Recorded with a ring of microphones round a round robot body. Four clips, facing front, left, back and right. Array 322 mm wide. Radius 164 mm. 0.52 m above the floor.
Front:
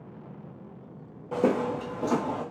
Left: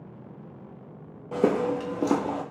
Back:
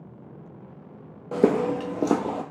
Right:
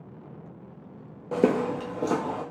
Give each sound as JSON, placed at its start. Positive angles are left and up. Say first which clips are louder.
{"t": 1.3, "sound": "footsteps", "louder": "even, back 4 dB", "azimuth_deg": -135, "distance_m": 0.5}